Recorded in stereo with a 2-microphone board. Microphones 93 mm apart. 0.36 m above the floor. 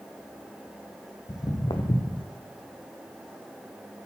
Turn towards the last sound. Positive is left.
turn(degrees=65)  # may be behind; listen again after turning